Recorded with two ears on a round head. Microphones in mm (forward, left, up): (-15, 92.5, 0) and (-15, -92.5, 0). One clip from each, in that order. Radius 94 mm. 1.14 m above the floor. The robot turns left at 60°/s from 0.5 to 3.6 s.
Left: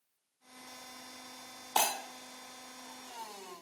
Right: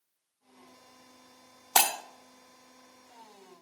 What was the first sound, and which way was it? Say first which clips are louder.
Breaking glass: right 5 dB; 65° right (ahead or behind).